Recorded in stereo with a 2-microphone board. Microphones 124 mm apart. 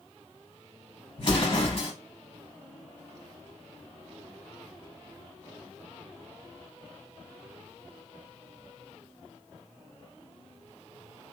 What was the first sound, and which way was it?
An explosion, 40° left (ahead or behind).